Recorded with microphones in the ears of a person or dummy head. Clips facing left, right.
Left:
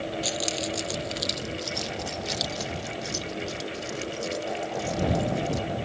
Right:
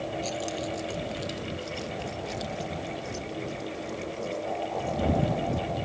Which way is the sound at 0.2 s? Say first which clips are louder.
Left 1 dB; 15° left (ahead or behind).